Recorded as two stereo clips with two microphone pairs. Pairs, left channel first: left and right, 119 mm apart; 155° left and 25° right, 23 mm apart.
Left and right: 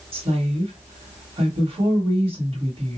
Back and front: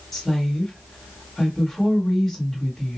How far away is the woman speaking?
About 1.4 m.